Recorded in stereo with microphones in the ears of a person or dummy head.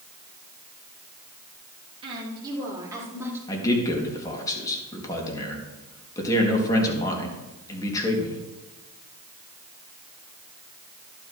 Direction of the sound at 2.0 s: 25° right (ahead or behind).